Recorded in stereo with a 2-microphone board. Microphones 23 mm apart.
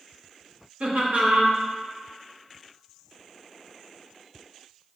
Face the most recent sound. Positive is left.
turn(degrees=-70)  # may be behind; listen again after turning